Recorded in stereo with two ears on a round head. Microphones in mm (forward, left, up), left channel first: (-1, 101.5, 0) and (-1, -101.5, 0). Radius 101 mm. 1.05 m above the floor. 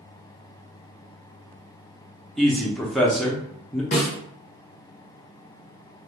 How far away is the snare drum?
About 1.1 m.